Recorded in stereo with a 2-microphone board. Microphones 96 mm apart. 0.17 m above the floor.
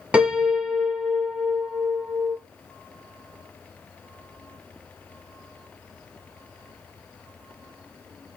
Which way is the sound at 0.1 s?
10° right (ahead or behind).